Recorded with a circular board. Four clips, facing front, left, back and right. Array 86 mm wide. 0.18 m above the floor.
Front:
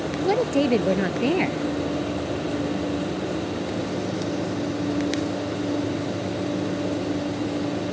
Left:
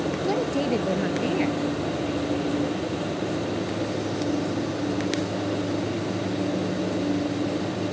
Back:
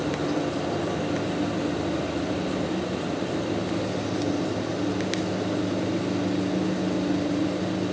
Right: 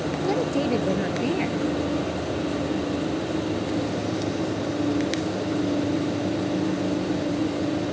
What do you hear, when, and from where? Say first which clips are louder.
0.2 s a woman speaking: right 3 dB, front 5 dB; straight ahead